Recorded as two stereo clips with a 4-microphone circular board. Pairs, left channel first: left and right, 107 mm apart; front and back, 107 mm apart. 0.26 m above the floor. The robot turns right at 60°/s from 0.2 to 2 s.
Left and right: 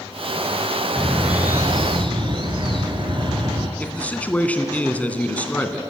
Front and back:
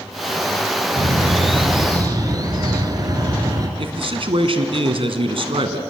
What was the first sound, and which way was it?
A bird, 170° left.